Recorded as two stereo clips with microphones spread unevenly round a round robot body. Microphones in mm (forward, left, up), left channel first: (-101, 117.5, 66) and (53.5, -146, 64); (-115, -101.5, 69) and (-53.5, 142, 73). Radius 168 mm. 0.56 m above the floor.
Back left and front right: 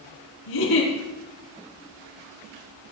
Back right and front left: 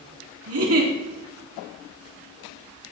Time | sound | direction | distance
0.5 | a giggle | 100° left | 3.5 m